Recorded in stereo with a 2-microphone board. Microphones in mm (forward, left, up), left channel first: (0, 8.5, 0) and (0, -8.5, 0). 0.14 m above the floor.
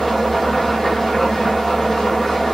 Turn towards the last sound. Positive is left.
turn(degrees=20)  # may be behind; listen again after turning